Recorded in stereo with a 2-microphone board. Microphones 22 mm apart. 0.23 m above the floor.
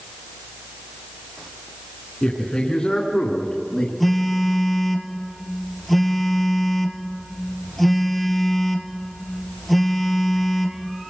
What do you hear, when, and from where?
2.2 s a man speaking: 40° left (ahead or behind), 3 m; by 3.9 s 35° left (ahead or behind), 2 m
4.0 s a phone buzzing: 5° left (ahead or behind), 1.9 m